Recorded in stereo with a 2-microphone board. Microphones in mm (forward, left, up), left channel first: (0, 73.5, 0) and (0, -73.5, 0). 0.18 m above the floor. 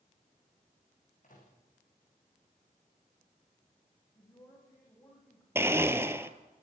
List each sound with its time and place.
1.2 s a microwave: 60° left (ahead or behind), 7.5 m
4.2 s a man speaking: 25° left (ahead or behind), 10 m
5.5 s a blender: 15° right (ahead or behind), 1.0 m